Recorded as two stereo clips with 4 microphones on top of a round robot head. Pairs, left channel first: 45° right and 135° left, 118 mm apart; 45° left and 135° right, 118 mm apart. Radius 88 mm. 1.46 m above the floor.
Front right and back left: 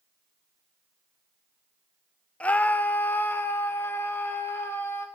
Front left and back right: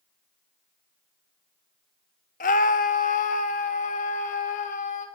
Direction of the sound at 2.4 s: 35° left.